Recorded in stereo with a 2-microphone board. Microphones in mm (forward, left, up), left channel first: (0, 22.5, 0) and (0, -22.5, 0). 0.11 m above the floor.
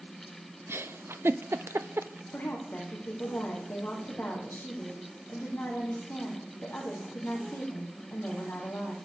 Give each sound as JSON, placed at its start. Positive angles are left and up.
{"t": 0.7, "sound": "a giggle", "side_deg": -75, "distance_m": 0.5}
{"t": 2.3, "sound": "a woman speaking", "side_deg": 45, "distance_m": 4.5}